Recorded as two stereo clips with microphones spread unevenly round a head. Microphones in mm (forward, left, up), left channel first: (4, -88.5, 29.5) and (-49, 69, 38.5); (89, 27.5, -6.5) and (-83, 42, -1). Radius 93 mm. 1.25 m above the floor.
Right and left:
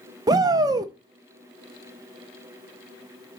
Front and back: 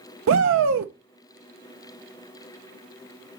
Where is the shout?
175° left, 0.6 m.